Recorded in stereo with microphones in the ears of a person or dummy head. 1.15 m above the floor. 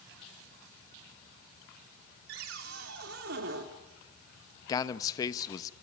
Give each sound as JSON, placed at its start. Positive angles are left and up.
{"t": 2.3, "sound": "a cupboard door", "side_deg": -65, "distance_m": 2.5}
{"t": 4.7, "sound": "a man speaking", "side_deg": 25, "distance_m": 0.9}